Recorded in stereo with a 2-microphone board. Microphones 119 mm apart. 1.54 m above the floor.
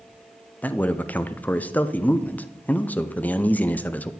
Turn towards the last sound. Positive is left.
turn(degrees=15)  # may be behind; listen again after turning